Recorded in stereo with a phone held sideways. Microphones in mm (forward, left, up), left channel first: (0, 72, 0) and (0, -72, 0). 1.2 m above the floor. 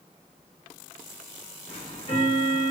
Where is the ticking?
40° left (ahead or behind), 3.5 m.